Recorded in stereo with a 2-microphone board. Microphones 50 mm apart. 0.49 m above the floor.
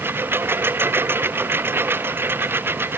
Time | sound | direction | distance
0.0 | a lawn mower | 50° right (ahead or behind) | ?